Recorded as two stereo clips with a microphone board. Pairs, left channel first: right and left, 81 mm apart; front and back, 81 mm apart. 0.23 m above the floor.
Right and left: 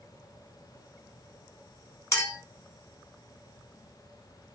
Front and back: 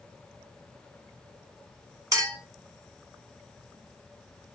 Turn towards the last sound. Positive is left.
turn(degrees=-140)